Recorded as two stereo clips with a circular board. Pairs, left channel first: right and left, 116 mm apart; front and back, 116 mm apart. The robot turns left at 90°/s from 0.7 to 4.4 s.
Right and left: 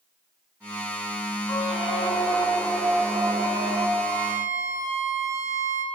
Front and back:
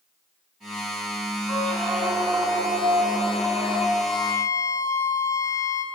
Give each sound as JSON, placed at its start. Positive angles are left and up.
{"t": 1.5, "sound": "a squeak", "azimuth_deg": -50, "distance_m": 1.2}
{"t": 4.0, "sound": "a violin", "azimuth_deg": 105, "distance_m": 1.0}